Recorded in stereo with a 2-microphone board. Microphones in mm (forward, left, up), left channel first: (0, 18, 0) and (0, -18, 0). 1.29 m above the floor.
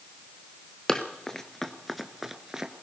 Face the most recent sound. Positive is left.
turn(degrees=-15)  # may be behind; listen again after turning